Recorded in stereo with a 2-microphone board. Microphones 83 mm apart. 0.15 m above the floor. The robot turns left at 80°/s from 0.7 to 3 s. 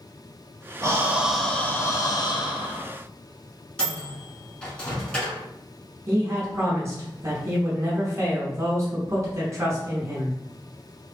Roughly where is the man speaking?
Right.